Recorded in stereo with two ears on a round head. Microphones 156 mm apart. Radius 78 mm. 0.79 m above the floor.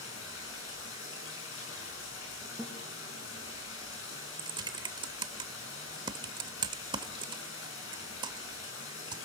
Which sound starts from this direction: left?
Running water, at 0.0 s.